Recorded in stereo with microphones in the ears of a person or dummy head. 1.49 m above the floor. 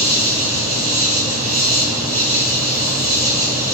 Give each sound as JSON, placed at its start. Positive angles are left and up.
{"t": 0.0, "sound": "an insect", "side_deg": -20, "distance_m": 1.6}